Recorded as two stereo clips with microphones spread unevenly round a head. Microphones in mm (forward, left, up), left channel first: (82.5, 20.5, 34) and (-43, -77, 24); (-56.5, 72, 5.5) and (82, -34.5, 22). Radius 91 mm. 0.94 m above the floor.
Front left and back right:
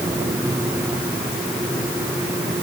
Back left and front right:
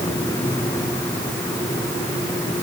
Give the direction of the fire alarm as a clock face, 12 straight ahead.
No fire alarm in this recording.